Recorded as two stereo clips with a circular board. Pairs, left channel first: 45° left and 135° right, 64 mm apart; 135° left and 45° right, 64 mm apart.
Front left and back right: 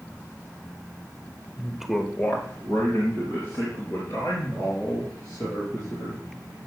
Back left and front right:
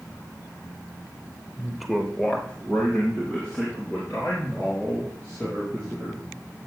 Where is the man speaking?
115° right, 0.9 m; by 6.2 s 70° left, 6.5 m.